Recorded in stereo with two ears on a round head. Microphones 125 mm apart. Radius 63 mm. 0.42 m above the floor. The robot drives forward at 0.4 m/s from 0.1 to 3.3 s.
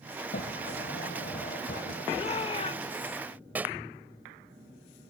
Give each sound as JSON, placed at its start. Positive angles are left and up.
{"t": 0.3, "sound": "a sliding door", "side_deg": 70}
{"t": 2.1, "sound": "a shout", "side_deg": 40}
{"t": 3.5, "sound": "a pop", "side_deg": -10}